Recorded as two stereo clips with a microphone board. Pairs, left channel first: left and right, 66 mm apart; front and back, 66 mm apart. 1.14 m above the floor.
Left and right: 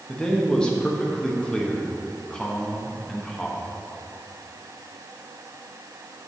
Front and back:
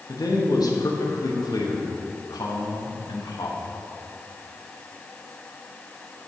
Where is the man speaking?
10° left, 1.2 m.